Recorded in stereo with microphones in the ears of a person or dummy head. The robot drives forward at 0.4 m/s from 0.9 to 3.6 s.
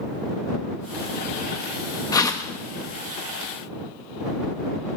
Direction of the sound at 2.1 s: 15° left (ahead or behind).